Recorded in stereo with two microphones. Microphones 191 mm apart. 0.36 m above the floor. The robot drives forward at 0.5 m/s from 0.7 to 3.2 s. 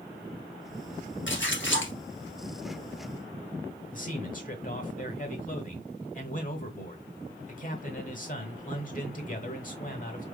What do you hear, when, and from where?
1.3 s a splash: 80° left, 1.6 m; by 1.9 s 85° left, 1.5 m
3.9 s a man speaking: 45° left (ahead or behind), 1.7 m